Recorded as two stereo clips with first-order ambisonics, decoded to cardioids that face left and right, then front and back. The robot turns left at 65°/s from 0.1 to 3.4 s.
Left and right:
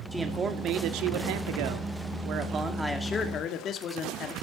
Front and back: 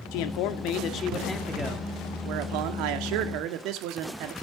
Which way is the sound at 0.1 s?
Straight ahead.